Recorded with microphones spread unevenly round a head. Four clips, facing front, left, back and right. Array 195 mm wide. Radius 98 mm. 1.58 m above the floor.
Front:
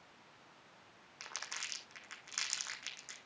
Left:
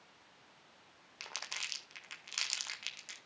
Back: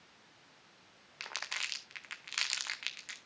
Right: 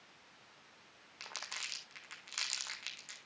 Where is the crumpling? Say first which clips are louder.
Left 1 dB, back 5 dB; 170° left, 0.8 m.